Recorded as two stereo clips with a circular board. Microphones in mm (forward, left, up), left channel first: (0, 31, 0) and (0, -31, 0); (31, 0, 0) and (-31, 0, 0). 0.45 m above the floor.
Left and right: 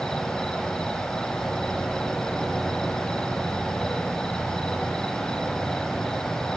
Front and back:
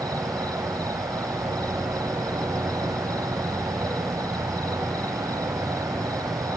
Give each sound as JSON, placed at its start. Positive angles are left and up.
{"t": 0.0, "sound": "an insect", "azimuth_deg": 170, "distance_m": 1.3}